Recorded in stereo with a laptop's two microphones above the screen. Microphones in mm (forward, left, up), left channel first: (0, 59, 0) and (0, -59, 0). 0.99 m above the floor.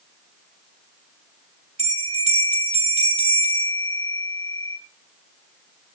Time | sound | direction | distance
1.8 | a bell | 60° right (ahead or behind) | 2.5 m